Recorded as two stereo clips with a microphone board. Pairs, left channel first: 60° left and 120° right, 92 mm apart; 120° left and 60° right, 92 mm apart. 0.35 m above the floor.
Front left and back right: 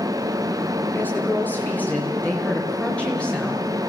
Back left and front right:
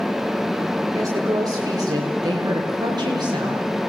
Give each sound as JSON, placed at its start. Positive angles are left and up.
{"t": 0.9, "sound": "a woman speaking", "azimuth_deg": -10, "distance_m": 6.5}